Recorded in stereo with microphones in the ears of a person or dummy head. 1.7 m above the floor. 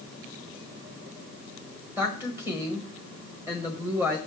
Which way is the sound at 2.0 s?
15° right (ahead or behind).